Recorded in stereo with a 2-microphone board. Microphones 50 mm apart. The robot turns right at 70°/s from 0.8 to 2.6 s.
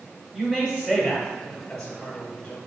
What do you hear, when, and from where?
0.3 s a man speaking: 15° right (ahead or behind), 1.2 m; by 2.6 s 25° left (ahead or behind), 1.2 m